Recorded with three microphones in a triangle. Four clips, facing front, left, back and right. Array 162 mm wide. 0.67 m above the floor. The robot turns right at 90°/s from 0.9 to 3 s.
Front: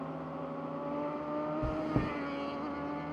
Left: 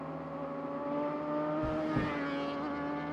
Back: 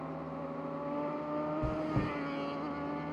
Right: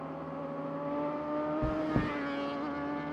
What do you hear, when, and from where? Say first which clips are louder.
1.6 s chewing: right 1 dB, front 1 dB; 85° right, 0.9 m; by 2.1 s 40° right, 0.9 m